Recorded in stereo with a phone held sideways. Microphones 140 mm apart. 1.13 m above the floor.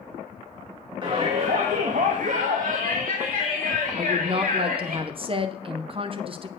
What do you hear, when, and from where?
1.0 s a shout: 35° right (ahead or behind), 1.4 m; by 5.0 s 75° right (ahead or behind), 2.5 m
4.0 s a woman speaking: 40° right (ahead or behind), 0.8 m